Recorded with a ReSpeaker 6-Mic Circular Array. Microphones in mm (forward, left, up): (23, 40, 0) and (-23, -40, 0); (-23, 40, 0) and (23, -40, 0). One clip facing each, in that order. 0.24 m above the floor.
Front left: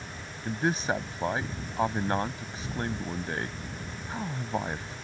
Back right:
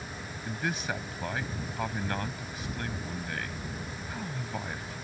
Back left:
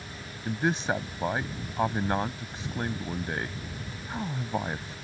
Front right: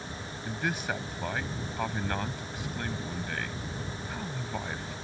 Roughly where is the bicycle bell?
I don't hear a bicycle bell.